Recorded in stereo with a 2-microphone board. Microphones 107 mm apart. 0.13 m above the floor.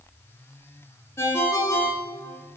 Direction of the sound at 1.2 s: 25° left (ahead or behind).